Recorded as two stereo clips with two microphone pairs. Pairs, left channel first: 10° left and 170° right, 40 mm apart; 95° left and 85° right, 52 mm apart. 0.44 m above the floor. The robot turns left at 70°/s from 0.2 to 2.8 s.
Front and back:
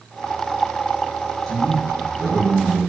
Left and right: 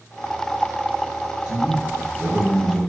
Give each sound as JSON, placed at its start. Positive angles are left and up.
{"t": 1.5, "sound": "a man speaking", "azimuth_deg": -55, "distance_m": 1.0}